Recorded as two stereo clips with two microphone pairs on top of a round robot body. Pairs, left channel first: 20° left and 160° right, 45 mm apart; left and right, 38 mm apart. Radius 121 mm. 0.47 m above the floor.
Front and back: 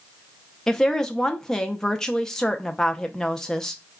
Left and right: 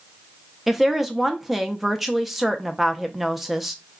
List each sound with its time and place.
0.7 s a woman speaking: 20° right, 0.7 m